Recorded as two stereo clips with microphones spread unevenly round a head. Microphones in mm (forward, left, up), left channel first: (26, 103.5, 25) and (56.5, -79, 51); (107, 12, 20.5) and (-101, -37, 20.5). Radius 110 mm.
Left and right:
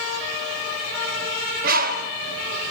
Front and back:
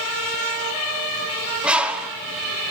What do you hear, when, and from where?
1.6 s a bird: 85° right, 1.3 m